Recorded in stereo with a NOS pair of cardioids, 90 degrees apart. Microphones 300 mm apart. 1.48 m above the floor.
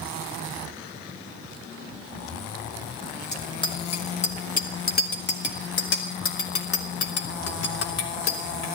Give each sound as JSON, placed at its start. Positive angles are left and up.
{"t": 3.3, "sound": "a bicycle bell", "azimuth_deg": 15, "distance_m": 2.5}